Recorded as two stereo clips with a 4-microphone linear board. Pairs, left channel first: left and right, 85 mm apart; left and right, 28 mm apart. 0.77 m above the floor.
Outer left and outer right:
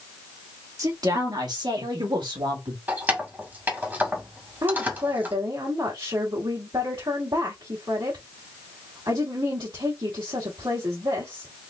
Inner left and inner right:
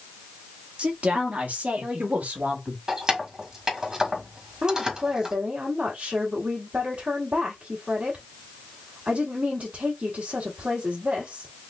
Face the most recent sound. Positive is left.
turn(degrees=-60)  # may be behind; listen again after turning